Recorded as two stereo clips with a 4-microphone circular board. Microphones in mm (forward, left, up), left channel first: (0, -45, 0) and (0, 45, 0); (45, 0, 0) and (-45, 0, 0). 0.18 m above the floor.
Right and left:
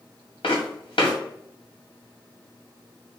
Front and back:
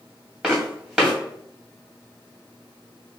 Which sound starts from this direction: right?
Footsteps, at 0.4 s.